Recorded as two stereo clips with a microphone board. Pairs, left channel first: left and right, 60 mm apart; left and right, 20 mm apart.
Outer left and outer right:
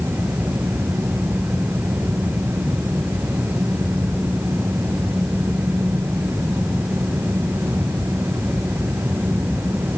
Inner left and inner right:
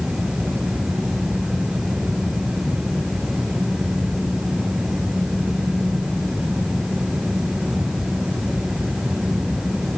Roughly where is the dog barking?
I don't hear a dog barking.